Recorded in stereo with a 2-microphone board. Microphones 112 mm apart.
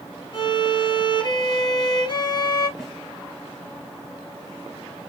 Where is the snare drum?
5° right (ahead or behind), 1.9 m.